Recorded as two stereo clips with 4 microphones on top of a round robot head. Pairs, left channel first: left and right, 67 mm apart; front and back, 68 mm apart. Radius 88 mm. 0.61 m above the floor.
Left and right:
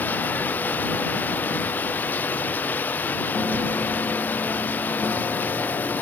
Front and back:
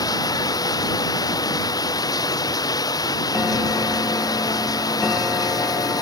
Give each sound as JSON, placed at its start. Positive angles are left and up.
{"t": 0.0, "sound": "running water", "azimuth_deg": 20}